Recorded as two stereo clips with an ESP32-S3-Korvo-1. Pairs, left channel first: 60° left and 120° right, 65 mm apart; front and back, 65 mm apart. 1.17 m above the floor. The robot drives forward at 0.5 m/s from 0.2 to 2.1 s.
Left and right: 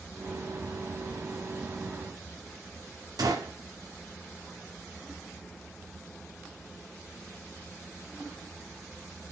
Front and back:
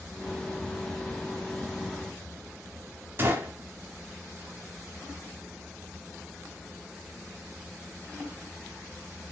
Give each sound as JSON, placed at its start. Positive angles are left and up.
{"t": 3.2, "sound": "a gunshot", "azimuth_deg": -125, "distance_m": 1.0}